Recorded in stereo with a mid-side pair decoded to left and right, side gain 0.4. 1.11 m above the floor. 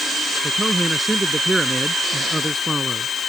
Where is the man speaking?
20° right.